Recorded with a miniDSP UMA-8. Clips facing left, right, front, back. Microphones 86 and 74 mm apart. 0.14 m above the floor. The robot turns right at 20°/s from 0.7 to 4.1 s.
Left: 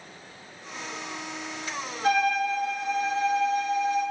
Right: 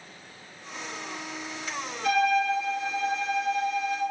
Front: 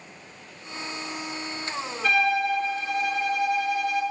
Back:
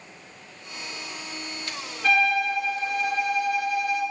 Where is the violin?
90° left, 1.0 m; by 4.0 s 130° left, 1.0 m.